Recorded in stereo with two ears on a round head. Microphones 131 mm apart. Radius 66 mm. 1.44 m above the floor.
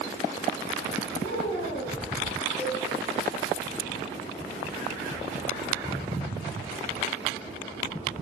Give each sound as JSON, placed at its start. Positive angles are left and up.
{"t": 1.2, "sound": "a woman speaking", "side_deg": 85, "distance_m": 5.0}
{"t": 2.6, "sound": "a cowbell", "side_deg": 5, "distance_m": 4.5}